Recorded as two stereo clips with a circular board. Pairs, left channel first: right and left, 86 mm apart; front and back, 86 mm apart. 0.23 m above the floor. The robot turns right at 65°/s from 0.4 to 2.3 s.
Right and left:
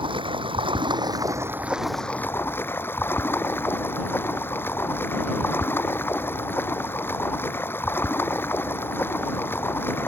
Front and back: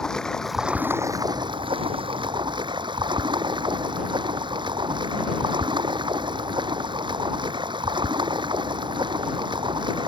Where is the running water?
85° left; by 10.1 s 155° right.